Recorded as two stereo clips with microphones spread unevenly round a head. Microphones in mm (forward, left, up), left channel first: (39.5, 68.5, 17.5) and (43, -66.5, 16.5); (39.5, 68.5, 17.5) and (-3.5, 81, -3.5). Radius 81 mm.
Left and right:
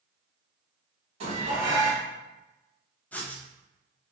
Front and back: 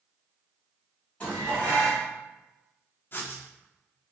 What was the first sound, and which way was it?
Dishes clattering, 60° right.